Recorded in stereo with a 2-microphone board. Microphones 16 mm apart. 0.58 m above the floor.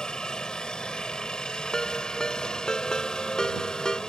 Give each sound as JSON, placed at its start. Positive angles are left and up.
{"t": 0.0, "sound": "a helicopter", "side_deg": 60}
{"t": 1.7, "sound": "a ringtone", "side_deg": 55}